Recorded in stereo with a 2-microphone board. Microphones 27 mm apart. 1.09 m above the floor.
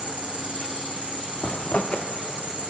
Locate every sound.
0.0 s an insect: 65° right (ahead or behind), 1.2 m
1.4 s a zipper: 55° left (ahead or behind), 0.9 m